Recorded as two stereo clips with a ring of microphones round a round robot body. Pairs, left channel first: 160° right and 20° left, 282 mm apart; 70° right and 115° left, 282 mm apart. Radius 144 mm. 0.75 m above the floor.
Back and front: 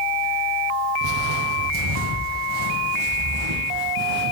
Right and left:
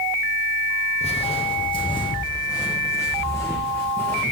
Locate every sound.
1.0 s footsteps: straight ahead, 2 m; by 4.3 s 15° left, 4 m